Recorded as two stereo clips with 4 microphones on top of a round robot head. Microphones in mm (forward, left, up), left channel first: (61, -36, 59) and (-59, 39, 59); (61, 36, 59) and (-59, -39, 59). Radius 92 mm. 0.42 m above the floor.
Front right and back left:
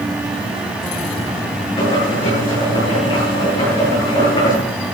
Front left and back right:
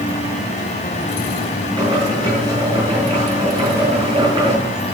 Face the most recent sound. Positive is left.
turn(degrees=-85)